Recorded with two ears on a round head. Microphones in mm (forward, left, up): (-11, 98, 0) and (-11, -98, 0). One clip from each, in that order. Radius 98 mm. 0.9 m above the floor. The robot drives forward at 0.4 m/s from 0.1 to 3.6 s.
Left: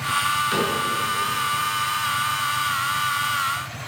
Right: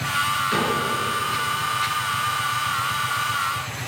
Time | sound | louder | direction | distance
0.5 | a cupboard door | even | 20° left (ahead or behind) | 6 m